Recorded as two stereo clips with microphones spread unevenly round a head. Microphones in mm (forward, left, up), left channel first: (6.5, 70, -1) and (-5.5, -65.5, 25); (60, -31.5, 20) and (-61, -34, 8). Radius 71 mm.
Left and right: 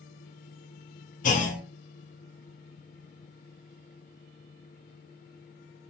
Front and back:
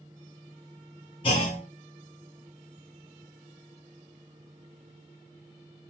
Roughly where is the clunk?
Ahead left.